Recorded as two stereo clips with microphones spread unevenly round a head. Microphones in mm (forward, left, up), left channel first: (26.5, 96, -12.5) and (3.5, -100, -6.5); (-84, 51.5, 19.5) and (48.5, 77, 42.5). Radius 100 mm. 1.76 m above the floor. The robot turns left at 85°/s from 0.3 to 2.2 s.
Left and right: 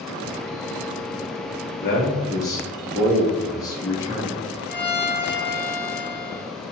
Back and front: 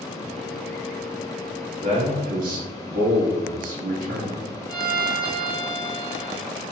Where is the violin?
Straight ahead, 1.7 m.